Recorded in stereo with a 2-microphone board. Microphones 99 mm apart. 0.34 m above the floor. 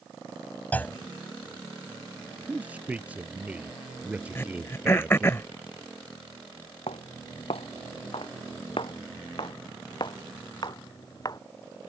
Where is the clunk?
15° left (ahead or behind).